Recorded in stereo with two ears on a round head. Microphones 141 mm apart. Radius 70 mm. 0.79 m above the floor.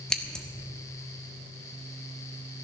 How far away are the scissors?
About 1.1 m.